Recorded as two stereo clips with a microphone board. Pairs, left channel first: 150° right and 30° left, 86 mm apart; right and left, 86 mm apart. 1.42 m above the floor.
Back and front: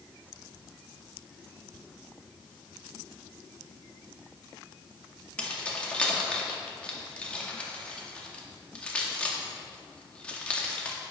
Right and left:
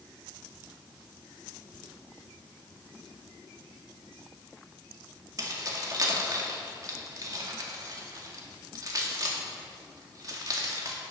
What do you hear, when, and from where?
5.4 s keys jangling: 135° left, 2.0 m